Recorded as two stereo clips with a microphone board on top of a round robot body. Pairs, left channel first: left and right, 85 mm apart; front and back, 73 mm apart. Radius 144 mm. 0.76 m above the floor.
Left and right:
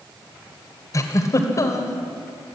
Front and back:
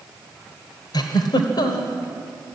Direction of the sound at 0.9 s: 35° left.